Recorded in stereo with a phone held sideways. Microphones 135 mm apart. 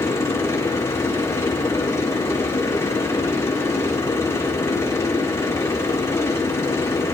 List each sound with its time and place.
0.0 s a machine running: 20° left (ahead or behind), 4 m